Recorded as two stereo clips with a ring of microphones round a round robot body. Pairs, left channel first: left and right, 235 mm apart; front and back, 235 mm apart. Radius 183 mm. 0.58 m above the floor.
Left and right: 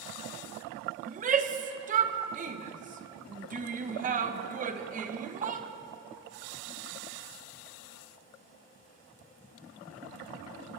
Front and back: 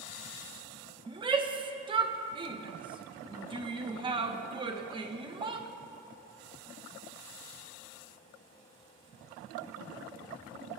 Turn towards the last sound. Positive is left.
turn(degrees=-120)